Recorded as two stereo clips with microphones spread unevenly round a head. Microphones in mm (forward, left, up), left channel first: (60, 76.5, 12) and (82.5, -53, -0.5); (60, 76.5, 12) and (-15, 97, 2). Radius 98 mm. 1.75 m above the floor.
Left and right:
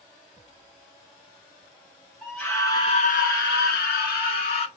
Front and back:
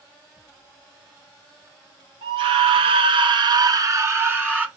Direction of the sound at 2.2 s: 170° right.